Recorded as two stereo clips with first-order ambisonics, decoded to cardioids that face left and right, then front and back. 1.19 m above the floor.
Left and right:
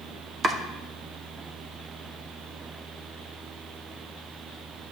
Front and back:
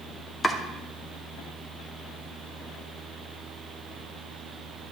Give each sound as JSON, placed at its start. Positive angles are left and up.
{"t": 0.4, "sound": "chopping", "azimuth_deg": -50, "distance_m": 0.7}